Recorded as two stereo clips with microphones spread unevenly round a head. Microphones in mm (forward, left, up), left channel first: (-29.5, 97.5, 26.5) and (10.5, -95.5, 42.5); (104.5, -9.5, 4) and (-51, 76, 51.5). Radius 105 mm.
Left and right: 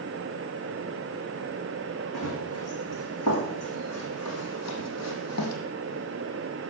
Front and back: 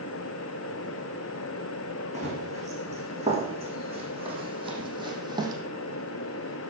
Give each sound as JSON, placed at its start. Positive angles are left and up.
{"t": 2.1, "sound": "running footsteps", "azimuth_deg": 105, "distance_m": 5.5}